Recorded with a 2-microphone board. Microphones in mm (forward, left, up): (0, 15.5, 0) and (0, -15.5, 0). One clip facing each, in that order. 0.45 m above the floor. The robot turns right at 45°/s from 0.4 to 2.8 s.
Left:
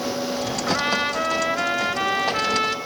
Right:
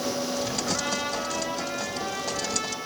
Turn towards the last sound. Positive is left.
turn(degrees=130)